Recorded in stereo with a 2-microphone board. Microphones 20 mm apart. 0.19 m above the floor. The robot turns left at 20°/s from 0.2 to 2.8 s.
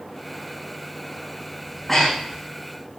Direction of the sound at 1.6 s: 10° left (ahead or behind).